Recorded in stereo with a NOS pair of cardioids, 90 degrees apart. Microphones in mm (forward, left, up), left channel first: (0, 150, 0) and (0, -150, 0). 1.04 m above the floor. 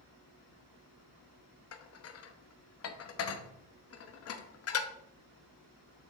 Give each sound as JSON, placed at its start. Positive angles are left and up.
{"t": 1.7, "sound": "dishes clattering", "azimuth_deg": 50, "distance_m": 0.8}